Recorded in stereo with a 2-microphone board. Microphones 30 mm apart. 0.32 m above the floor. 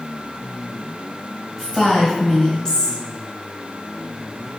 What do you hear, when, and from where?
1.6 s a woman speaking: 15° left (ahead or behind), 1.3 m